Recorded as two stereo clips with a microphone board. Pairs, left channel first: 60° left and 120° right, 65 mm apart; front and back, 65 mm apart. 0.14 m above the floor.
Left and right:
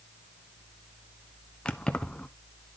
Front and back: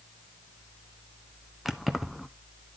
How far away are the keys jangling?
About 0.8 m.